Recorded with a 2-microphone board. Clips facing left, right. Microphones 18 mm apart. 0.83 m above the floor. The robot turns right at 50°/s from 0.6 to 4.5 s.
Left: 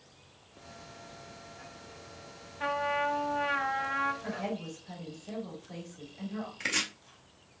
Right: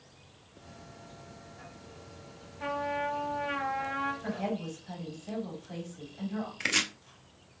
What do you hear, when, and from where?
2.6 s a trumpet: 80° left, 1.5 m; by 4.1 s 155° left, 1.5 m
4.2 s a woman speaking: 25° right (ahead or behind), 2 m; by 6.5 s 35° right (ahead or behind), 2 m
6.6 s chopping: 25° right (ahead or behind), 0.5 m